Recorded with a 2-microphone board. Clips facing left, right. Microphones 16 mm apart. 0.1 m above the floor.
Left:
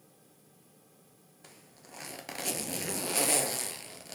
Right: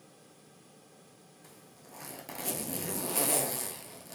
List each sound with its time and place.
1.4 s a zipper: 35° left (ahead or behind), 0.6 m